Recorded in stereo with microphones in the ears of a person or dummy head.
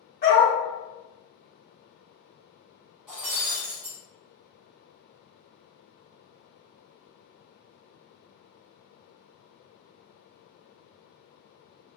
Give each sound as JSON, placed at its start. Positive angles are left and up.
{"t": 0.2, "sound": "a dog barking", "side_deg": 45, "distance_m": 1.7}
{"t": 3.1, "sound": "breaking glass", "side_deg": 5, "distance_m": 1.2}